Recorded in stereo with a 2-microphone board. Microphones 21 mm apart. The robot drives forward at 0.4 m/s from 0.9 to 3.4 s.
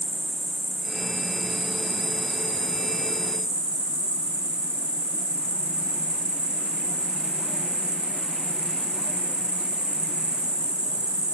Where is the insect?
40° right (ahead or behind), 1.0 m; by 11.3 s 60° right (ahead or behind), 0.7 m.